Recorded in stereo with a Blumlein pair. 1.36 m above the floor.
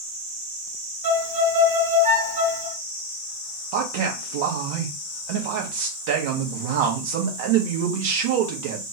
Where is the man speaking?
50° right, 1.0 m.